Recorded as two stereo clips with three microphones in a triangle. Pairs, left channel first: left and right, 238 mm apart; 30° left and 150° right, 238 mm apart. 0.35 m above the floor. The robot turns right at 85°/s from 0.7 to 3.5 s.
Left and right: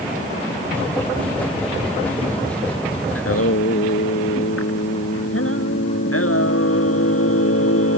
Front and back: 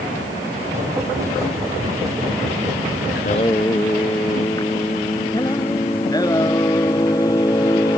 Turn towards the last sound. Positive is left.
turn(degrees=105)